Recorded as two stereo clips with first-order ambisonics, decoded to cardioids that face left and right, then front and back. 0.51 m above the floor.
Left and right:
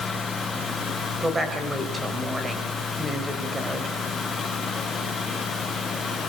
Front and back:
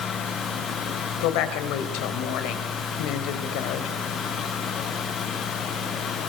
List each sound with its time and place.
1.2 s a woman speaking: 10° right, 3 m